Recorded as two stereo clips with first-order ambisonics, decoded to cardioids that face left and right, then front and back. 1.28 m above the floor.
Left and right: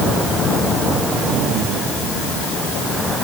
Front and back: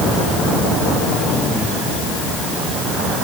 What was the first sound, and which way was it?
Only background noise.